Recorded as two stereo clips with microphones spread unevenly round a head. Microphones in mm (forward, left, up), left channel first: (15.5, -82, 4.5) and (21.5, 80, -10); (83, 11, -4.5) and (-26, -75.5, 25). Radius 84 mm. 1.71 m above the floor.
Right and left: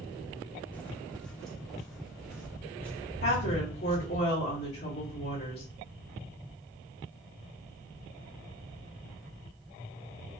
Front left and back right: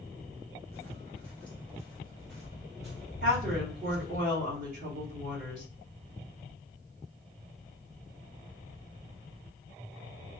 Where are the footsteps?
45° right, 1.7 m; by 4.2 s 155° left, 2 m.